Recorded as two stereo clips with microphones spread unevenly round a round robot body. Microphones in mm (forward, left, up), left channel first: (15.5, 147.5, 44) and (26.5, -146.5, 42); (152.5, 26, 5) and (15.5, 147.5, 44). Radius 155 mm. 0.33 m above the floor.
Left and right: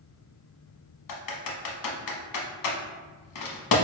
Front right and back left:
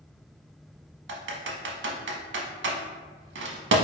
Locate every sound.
1.1 s typing on a keyboard: 120° left, 0.8 m